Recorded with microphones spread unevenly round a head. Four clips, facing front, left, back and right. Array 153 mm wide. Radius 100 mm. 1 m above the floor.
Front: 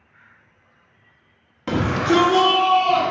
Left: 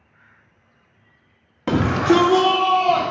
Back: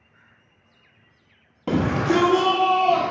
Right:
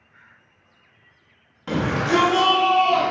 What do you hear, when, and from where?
1.7 s a shout: 120° left, 0.9 m; by 3.1 s 115° left, 1.9 m